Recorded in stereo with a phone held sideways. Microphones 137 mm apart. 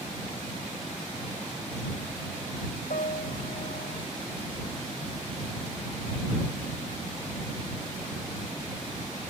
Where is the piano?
80° left.